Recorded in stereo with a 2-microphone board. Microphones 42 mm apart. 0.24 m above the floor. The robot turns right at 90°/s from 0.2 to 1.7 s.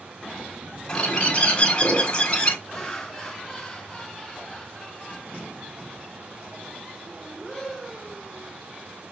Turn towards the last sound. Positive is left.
turn(degrees=10)  # may be behind; listen again after turning